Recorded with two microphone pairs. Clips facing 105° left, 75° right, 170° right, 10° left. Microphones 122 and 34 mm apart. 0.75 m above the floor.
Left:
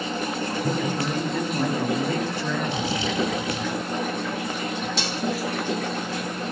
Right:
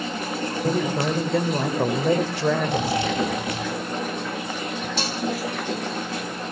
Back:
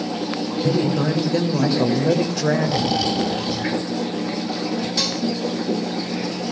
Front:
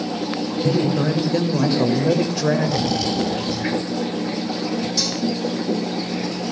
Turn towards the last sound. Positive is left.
turn(degrees=-120)